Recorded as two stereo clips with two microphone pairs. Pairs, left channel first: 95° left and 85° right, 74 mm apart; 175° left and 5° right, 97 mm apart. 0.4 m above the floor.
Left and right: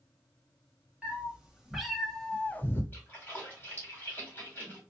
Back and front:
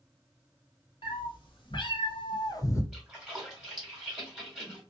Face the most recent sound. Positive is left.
turn(degrees=75)